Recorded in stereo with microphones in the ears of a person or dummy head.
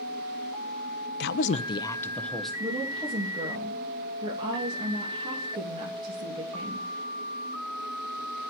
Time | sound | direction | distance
1.2 | a woman speaking | 60° left (ahead or behind) | 0.7 m
2.6 | a woman speaking | 25° right (ahead or behind) | 2.5 m